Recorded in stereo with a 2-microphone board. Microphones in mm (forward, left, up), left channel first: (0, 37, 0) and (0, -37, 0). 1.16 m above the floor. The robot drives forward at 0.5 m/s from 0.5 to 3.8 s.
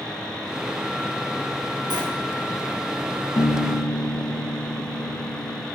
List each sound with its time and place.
1.9 s a sliding door: 85° right, 2.5 m
3.4 s a piano: 60° left (ahead or behind), 0.9 m; by 5.7 s 50° left (ahead or behind), 1.0 m